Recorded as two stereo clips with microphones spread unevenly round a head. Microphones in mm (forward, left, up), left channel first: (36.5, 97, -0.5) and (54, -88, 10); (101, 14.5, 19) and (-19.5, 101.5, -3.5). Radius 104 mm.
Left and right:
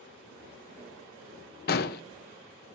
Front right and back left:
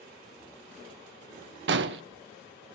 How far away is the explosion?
About 0.8 m.